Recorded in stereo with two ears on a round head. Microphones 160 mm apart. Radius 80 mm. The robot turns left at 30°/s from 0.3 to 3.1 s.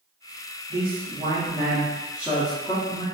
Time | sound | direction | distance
0.7 | a man speaking | 120° right | 0.7 m